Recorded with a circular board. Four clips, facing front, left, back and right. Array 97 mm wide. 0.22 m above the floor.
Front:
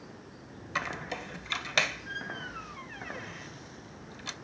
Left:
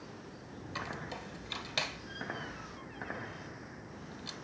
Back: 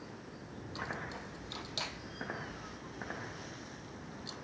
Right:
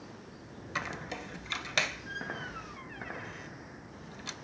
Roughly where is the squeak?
Ahead right.